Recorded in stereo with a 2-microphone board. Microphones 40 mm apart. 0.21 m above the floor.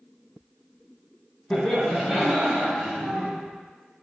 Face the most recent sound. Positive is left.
turn(degrees=-50)  # may be behind; listen again after turning